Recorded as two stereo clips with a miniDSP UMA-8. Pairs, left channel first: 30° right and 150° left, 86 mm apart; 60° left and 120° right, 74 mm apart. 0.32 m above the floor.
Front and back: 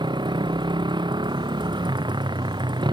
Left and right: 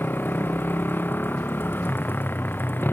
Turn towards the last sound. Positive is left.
turn(degrees=120)